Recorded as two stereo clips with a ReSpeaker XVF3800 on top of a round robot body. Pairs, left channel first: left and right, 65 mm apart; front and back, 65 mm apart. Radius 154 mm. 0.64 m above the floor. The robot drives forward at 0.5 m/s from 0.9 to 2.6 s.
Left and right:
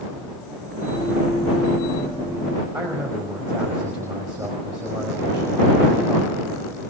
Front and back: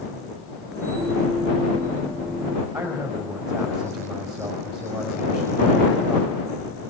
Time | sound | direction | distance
2.7 | a man speaking | 160° right | 5.5 m